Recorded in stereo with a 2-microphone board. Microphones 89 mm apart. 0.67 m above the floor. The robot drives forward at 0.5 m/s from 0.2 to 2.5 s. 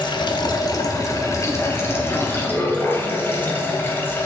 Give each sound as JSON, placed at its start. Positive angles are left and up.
{"t": 0.0, "sound": "running water", "side_deg": 60, "distance_m": 0.9}